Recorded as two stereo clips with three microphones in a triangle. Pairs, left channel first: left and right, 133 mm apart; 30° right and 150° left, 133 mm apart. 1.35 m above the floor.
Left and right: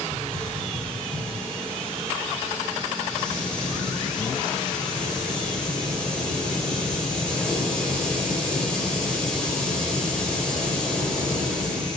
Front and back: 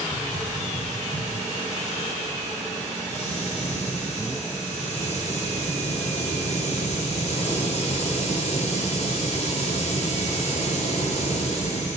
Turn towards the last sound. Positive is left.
turn(degrees=5)